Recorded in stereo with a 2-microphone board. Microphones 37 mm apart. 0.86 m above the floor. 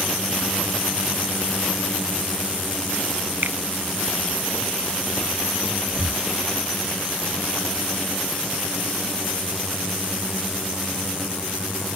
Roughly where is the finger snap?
Right.